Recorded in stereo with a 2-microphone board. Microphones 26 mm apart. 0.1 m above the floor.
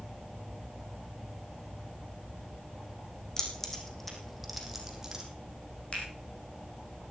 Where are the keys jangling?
30° left (ahead or behind), 4 m; by 5.2 s 15° right (ahead or behind), 3.5 m.